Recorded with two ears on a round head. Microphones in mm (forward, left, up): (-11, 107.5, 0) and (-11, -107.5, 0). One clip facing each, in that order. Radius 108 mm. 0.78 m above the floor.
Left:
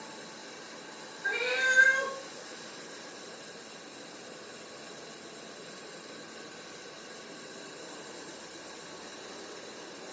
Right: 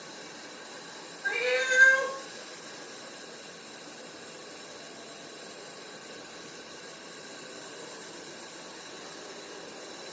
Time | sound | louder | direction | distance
1.2 | a cat meowing | right 5 dB | 10° left (ahead or behind) | 1.7 m